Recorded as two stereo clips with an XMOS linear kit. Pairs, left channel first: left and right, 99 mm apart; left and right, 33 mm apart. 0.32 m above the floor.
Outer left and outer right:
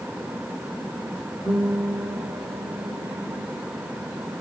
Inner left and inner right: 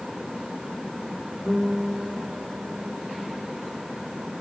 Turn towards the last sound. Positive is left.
turn(degrees=-60)  # may be behind; listen again after turning